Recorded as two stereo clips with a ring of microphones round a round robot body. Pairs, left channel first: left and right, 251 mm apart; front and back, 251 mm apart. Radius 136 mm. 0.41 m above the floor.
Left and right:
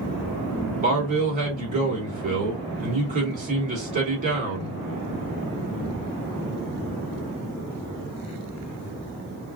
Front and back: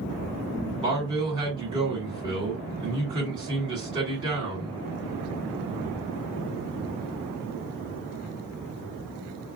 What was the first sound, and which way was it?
A man speaking, 120° right.